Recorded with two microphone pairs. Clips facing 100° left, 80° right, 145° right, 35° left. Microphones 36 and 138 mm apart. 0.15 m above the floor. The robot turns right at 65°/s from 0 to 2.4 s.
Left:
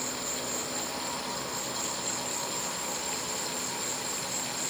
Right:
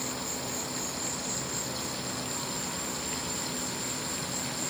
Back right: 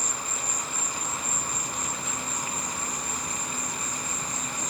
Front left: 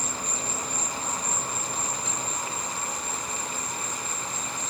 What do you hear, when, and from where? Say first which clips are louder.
0.0 s an insect: even, front left 2 dB; 85° left, 1.9 m; by 4.7 s 120° right, 1.9 m